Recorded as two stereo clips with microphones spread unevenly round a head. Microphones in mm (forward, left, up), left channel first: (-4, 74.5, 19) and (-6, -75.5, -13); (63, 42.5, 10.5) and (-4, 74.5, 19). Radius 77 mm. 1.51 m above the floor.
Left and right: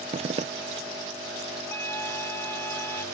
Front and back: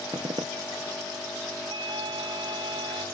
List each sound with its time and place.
0.1 s a zipper: 145° right
1.7 s a flute: 160° left